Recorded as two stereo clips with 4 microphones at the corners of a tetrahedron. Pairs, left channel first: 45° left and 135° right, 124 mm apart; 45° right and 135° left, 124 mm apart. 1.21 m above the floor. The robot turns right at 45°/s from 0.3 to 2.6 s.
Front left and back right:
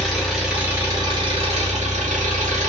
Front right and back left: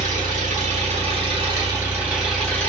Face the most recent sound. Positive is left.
turn(degrees=-125)